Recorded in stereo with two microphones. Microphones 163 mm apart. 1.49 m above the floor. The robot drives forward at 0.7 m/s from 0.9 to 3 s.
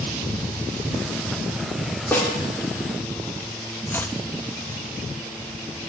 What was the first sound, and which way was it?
A snare drum, 10° left (ahead or behind).